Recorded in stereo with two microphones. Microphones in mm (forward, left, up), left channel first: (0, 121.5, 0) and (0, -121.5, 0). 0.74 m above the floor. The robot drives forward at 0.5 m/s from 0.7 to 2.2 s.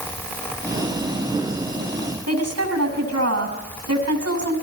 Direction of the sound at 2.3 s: 85° right.